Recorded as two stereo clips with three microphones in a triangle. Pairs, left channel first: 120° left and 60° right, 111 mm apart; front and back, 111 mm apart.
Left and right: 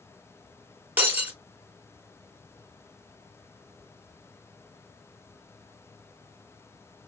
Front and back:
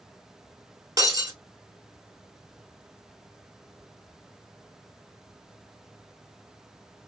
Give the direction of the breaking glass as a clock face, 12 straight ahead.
4 o'clock.